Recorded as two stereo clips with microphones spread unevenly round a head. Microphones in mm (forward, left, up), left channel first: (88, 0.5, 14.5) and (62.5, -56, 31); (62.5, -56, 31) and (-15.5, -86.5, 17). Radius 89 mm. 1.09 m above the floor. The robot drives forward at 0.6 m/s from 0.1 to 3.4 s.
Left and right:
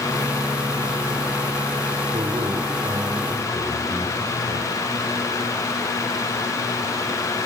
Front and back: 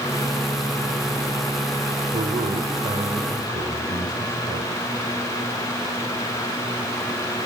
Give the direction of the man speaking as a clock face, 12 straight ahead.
5 o'clock.